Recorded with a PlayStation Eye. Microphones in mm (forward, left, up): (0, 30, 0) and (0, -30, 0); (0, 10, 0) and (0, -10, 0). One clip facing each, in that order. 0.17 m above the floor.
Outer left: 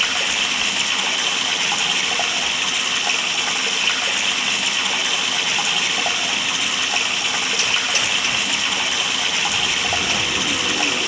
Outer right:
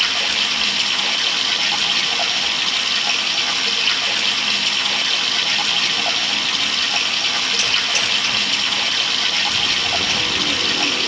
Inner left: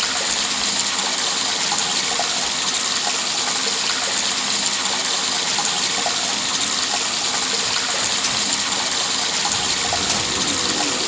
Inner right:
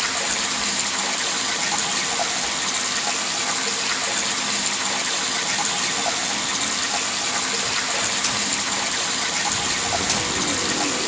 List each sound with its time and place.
0.0 s running water: 15° left (ahead or behind), 5 m